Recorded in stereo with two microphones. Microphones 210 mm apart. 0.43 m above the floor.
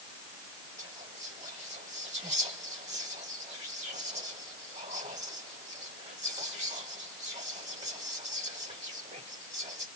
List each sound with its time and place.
0.8 s whispering: 35° right (ahead or behind), 1.4 m